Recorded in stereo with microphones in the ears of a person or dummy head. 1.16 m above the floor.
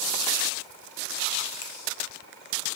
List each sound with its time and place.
1.6 s a finger snap: 85° left, 0.6 m